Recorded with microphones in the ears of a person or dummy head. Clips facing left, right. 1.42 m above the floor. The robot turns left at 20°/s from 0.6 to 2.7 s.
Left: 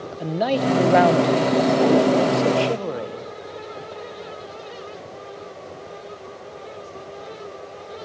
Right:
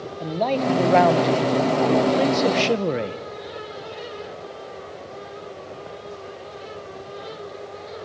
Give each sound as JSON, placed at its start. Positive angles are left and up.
{"t": 0.2, "sound": "a man speaking", "azimuth_deg": 10, "distance_m": 1.0}